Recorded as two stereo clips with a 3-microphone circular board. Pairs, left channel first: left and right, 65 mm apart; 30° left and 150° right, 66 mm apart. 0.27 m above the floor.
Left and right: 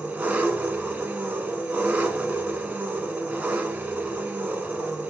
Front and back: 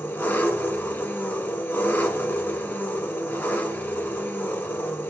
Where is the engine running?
25° right, 1.1 m.